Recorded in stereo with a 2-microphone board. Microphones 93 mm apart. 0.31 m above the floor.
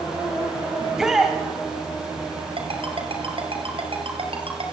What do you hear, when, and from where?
0.8 s a shout: 5° right (ahead or behind), 2 m
2.6 s a ringtone: 70° right (ahead or behind), 4 m